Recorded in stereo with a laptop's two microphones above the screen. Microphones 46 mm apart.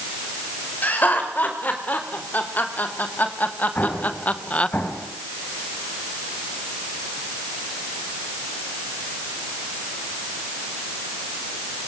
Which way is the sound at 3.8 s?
40° left (ahead or behind).